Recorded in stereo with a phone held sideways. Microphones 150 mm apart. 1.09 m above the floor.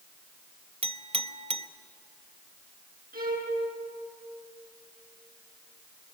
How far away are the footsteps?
I don't hear footsteps.